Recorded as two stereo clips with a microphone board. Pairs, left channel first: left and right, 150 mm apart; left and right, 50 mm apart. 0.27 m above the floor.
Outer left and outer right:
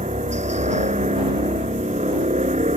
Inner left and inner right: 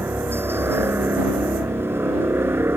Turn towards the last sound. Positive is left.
turn(degrees=-50)  # may be behind; listen again after turning